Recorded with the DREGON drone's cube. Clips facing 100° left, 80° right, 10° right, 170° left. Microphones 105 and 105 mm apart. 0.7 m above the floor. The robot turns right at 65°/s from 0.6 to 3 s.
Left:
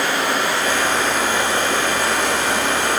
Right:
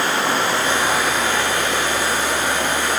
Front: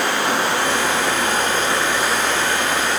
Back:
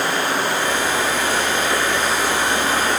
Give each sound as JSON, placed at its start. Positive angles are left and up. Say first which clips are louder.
{"t": 0.0, "sound": "running water", "louder": "even, front 1 dB", "azimuth_deg": -20, "distance_m": 5.5}